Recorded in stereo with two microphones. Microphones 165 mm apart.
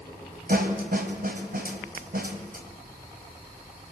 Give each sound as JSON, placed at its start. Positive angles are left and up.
{"t": 0.5, "sound": "a snare drum", "side_deg": -65, "distance_m": 2.5}